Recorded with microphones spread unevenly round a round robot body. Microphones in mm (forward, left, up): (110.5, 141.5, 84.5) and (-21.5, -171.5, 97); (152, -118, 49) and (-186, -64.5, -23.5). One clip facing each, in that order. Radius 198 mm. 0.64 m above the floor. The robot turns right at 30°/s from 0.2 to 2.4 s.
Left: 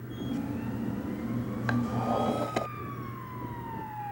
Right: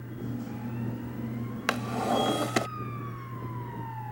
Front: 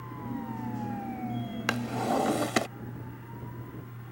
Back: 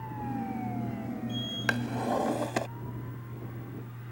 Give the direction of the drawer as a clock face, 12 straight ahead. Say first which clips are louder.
Even, even; 3 o'clock.